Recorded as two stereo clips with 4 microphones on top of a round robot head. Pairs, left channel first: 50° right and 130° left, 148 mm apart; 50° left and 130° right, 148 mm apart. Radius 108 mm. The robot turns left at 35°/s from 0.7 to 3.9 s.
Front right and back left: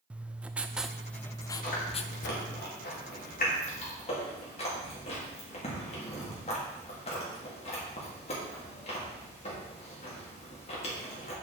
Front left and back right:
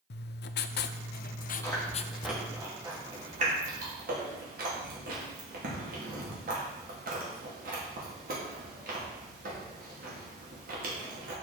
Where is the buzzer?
No buzzer in this recording.